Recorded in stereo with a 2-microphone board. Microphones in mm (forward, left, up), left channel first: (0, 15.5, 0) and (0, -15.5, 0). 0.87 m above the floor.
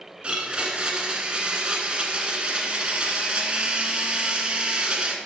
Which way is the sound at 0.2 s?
30° right (ahead or behind).